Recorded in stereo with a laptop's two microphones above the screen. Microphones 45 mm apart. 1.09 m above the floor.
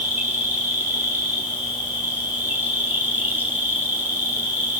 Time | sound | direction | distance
0.0 | an insect | 50° right (ahead or behind) | 4 m